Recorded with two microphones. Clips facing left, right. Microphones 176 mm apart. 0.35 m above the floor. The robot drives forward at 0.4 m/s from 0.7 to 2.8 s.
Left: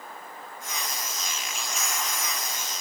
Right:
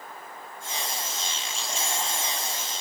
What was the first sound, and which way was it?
Only background noise.